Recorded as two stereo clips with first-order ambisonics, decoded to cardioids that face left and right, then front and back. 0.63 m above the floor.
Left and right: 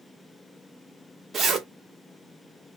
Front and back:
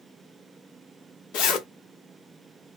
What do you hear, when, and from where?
1.3 s a zipper: 20° right, 1.1 m